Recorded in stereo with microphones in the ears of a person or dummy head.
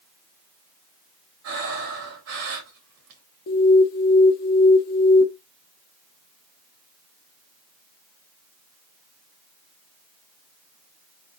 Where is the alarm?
50° left (ahead or behind), 0.7 m.